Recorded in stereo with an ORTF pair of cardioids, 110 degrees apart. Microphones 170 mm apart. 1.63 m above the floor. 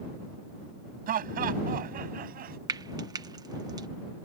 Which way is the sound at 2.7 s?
25° right.